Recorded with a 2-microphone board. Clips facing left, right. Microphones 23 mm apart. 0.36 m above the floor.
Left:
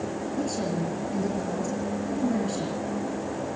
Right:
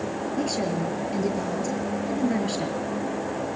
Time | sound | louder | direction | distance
0.4 | a woman speaking | right 2 dB | 35° right (ahead or behind) | 6 m